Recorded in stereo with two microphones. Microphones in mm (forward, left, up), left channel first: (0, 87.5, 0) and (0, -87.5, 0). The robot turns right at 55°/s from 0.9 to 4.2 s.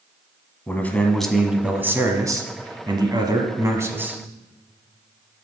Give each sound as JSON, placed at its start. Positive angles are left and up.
{"t": 0.7, "sound": "a man speaking", "side_deg": 10, "distance_m": 1.0}